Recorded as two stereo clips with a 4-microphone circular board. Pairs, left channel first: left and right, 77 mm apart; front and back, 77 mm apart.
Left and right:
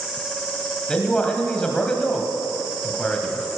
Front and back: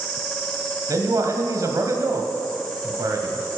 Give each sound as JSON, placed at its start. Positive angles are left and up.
{"t": 0.9, "sound": "a man speaking", "azimuth_deg": 165, "distance_m": 1.6}